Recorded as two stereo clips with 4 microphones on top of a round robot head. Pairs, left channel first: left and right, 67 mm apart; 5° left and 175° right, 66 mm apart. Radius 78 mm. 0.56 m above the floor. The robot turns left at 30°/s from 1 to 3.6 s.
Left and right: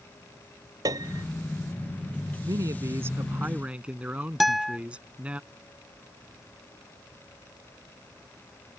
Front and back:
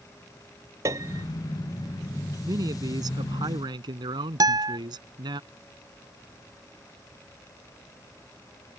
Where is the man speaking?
130° right; by 5.4 s 165° right.